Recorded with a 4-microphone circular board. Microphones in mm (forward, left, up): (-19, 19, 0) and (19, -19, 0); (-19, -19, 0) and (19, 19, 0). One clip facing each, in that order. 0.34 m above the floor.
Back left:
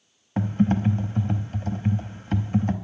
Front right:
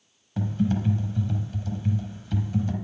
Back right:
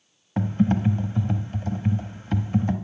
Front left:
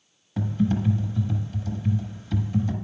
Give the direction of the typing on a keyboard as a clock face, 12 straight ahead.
6 o'clock.